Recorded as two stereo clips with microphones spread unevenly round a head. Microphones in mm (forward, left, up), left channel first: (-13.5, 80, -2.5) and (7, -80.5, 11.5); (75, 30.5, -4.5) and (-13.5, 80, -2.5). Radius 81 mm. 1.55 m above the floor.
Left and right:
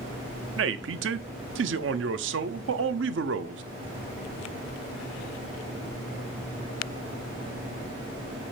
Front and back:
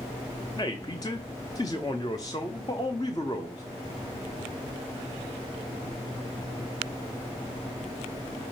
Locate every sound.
0.6 s a man speaking: 100° right, 0.6 m